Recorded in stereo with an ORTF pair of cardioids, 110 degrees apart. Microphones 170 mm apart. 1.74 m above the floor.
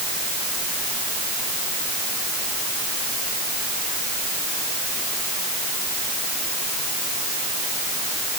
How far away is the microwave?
I don't hear a microwave.